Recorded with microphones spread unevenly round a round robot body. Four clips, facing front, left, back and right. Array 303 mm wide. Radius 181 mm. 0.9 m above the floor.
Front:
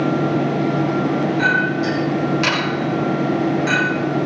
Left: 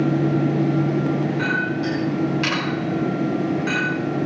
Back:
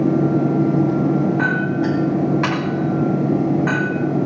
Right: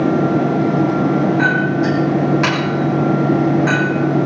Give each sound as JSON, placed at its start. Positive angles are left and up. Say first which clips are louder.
{"t": 1.4, "sound": "a clink", "louder": "right 7 dB, front 1 dB", "azimuth_deg": -130, "distance_m": 4.0}